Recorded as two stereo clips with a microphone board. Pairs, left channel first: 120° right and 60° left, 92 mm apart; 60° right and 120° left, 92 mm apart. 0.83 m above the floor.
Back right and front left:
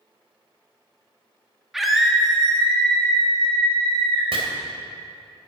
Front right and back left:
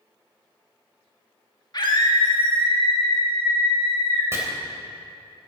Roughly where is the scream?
Ahead right.